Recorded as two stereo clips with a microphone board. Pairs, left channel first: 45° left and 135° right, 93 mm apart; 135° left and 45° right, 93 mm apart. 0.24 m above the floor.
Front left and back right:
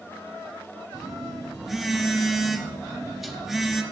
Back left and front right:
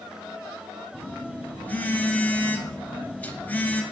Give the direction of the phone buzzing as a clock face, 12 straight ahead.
7 o'clock.